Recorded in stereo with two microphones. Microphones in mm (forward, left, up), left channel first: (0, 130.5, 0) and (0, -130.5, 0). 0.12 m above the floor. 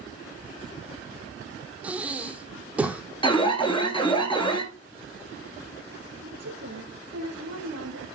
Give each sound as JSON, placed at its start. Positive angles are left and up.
{"t": 1.8, "sound": "breathing", "side_deg": -5, "distance_m": 1.4}
{"t": 3.2, "sound": "an alarm", "side_deg": 20, "distance_m": 1.6}
{"t": 6.2, "sound": "a woman speaking", "side_deg": -70, "distance_m": 5.0}